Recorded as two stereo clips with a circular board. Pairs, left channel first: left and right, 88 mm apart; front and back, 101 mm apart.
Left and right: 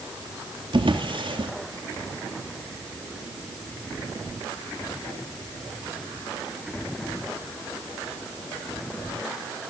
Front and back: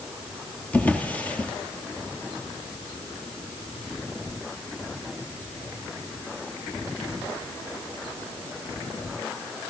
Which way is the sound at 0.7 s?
75° right.